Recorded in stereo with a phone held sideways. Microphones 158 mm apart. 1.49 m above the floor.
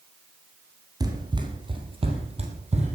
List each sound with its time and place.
1.0 s running footsteps: 25° right (ahead or behind), 2.5 m; by 3.0 s 50° right (ahead or behind), 3 m